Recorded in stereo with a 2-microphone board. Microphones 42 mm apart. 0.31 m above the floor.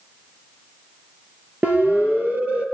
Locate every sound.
1.6 s a siren: 45° right (ahead or behind), 5.5 m; by 2.6 s 40° right (ahead or behind), 6 m